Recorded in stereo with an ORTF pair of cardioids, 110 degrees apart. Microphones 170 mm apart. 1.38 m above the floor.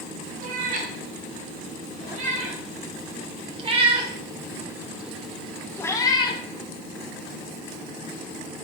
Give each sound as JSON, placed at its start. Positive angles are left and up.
{"t": 0.4, "sound": "a cat meowing", "azimuth_deg": -60, "distance_m": 4.5}